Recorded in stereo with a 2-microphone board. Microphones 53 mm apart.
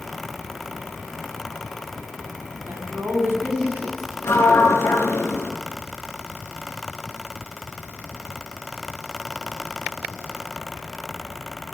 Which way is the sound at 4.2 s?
60° left (ahead or behind).